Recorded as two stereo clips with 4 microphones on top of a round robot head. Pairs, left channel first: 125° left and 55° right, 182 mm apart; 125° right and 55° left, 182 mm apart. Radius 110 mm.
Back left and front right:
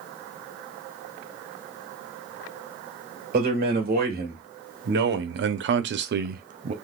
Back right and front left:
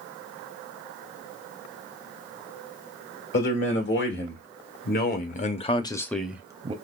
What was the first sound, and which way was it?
A man speaking, 100° right.